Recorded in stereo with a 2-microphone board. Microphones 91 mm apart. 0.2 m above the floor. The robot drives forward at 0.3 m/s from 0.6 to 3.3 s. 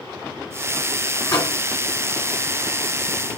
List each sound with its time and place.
1.3 s a microwave: 45° left (ahead or behind), 1.8 m